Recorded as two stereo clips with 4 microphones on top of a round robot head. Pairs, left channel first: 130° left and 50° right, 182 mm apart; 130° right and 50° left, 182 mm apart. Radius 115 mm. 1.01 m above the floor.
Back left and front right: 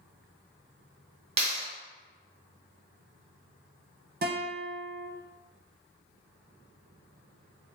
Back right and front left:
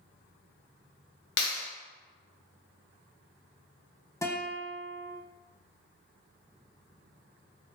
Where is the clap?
110° right, 1.2 m.